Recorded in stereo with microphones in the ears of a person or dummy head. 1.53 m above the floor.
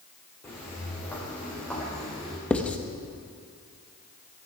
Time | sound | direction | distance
0.4 | footsteps | 15° left (ahead or behind) | 6 m
2.5 | writing | 10° left (ahead or behind) | 0.9 m